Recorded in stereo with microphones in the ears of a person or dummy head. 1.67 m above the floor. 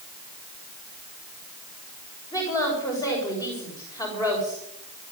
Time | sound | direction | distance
2.3 | a woman speaking | 20° left (ahead or behind) | 6.5 m